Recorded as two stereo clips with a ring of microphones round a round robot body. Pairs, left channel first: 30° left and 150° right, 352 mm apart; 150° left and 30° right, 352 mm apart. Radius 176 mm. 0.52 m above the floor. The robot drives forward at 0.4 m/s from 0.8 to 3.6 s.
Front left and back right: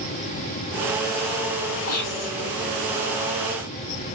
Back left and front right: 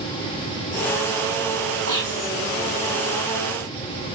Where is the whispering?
70° left, 3.5 m; by 2.3 s 75° left, 3.5 m.